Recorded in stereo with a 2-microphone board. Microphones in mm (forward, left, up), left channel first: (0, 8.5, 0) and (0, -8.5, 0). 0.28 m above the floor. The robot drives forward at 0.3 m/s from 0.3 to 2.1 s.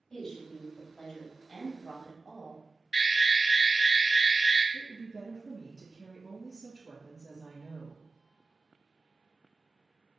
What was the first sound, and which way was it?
A woman speaking, 25° left (ahead or behind).